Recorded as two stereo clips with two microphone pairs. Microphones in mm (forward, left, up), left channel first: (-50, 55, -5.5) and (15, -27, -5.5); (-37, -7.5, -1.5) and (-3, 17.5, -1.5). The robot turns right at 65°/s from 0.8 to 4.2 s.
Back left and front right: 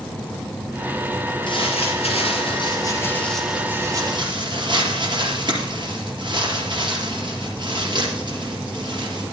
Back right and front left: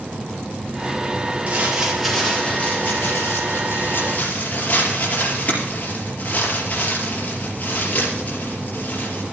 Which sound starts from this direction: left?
Crumpling, at 1.5 s.